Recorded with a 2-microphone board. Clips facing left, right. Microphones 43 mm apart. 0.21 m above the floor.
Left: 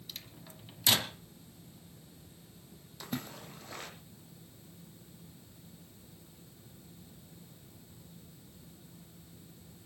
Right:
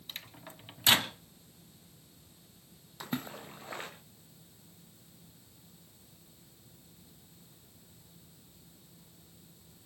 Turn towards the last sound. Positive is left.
turn(degrees=-25)  # may be behind; listen again after turning